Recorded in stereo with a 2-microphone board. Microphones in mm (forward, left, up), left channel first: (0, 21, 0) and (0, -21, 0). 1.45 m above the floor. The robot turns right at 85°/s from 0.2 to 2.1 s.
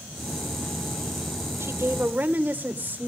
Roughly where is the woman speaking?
Right.